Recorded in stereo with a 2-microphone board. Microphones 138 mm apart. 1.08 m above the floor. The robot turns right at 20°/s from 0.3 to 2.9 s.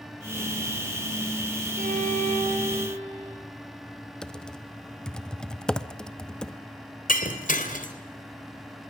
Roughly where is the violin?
Right.